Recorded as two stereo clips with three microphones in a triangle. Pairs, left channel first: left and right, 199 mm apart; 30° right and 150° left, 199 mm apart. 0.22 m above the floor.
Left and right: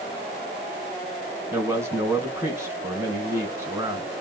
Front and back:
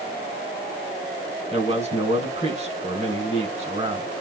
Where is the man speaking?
165° right, 1.9 m.